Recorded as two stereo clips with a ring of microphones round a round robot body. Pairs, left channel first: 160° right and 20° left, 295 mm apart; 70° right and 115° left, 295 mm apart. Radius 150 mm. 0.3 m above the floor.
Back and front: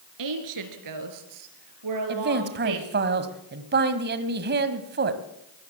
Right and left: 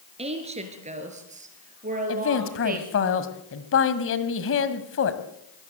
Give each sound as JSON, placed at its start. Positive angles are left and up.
{"t": 0.2, "sound": "a woman speaking", "azimuth_deg": 40, "distance_m": 4.0}
{"t": 2.1, "sound": "a man speaking", "azimuth_deg": -30, "distance_m": 1.9}